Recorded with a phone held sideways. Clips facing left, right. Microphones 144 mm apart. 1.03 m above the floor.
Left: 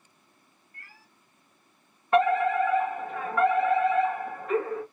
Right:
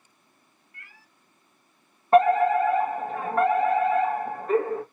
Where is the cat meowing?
35° left (ahead or behind), 1.2 m.